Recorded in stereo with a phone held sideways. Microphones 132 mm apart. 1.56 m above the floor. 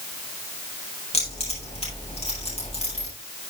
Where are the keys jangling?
55° left (ahead or behind), 8 m.